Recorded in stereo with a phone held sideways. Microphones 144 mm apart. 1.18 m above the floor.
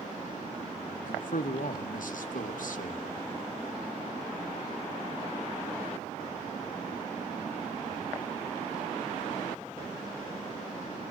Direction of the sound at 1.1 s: 70° left (ahead or behind).